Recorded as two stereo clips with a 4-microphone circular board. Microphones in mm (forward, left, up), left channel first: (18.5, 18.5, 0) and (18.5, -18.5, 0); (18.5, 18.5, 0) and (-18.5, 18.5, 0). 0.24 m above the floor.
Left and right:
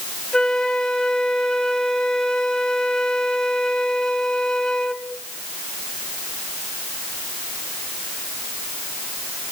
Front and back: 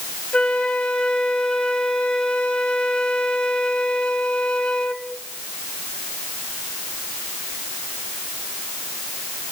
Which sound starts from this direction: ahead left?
A flute, at 0.3 s.